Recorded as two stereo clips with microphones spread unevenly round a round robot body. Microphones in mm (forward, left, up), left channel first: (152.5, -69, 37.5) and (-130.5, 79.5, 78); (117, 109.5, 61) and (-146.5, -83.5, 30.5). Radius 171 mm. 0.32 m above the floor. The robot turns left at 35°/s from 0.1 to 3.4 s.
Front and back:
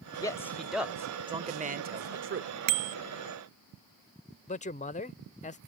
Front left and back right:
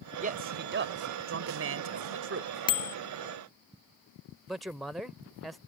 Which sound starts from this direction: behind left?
A bicycle bell, at 2.7 s.